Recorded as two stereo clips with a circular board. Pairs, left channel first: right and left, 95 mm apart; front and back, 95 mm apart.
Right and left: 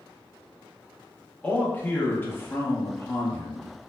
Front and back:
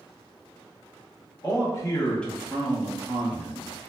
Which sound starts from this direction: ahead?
A man speaking, at 1.4 s.